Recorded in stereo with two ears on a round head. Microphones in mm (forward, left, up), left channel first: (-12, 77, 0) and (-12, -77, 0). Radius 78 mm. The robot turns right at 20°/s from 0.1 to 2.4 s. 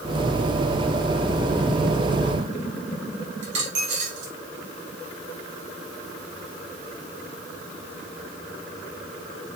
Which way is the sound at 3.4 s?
75° right (ahead or behind).